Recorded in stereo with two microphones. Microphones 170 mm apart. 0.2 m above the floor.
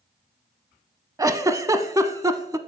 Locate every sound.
1.2 s a giggle: 20° right (ahead or behind), 0.5 m